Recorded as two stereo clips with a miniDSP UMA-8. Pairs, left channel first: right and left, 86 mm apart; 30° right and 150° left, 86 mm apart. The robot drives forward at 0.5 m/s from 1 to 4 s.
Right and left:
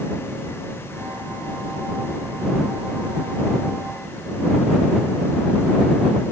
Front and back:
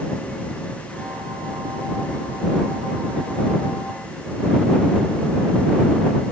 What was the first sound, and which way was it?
Only background noise.